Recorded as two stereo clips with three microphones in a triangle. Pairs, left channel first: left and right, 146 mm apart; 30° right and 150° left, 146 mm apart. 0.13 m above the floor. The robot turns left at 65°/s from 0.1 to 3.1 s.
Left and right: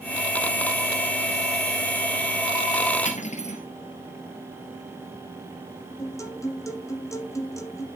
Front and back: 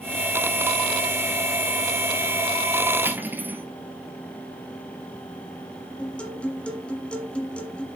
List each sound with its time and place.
3.0 s cutlery clinking: 80° left, 1.5 m; by 3.6 s 75° left, 1.5 m
6.0 s a guitar: 45° left, 1.5 m